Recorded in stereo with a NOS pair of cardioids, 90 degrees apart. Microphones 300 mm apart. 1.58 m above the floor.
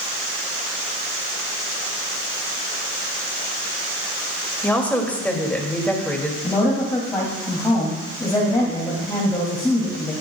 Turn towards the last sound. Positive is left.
turn(degrees=10)